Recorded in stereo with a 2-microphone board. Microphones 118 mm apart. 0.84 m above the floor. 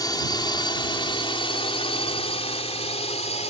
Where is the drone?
35° left (ahead or behind); by 3.5 s 65° left (ahead or behind).